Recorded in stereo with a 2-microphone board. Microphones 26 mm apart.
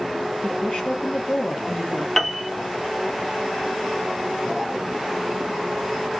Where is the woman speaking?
40° left (ahead or behind), 1.4 m.